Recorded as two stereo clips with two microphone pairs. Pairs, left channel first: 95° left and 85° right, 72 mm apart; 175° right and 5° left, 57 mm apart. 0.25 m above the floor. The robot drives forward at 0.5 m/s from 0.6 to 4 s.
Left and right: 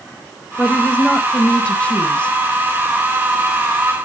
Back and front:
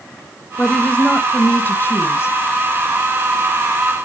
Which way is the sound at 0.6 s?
135° left.